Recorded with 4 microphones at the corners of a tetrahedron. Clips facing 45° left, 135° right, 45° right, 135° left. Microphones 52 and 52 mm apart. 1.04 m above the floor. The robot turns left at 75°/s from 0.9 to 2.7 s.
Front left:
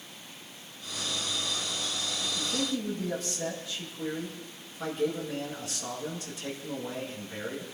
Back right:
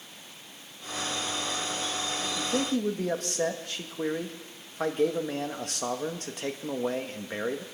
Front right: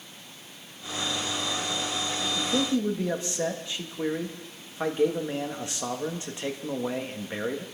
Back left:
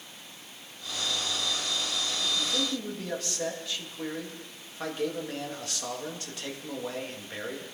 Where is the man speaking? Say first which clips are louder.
Back right 4 dB, front right 9 dB; 85° right, 1.8 m; by 7.6 s 110° right, 1.8 m.